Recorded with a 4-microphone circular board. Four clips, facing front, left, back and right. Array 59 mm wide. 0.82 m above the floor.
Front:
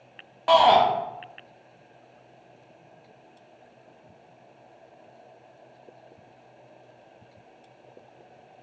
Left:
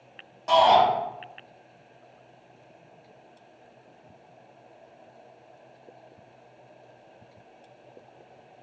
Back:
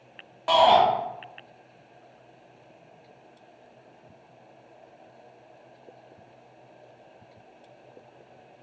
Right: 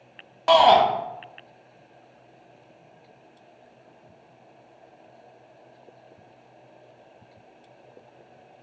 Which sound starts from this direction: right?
A shout, at 0.5 s.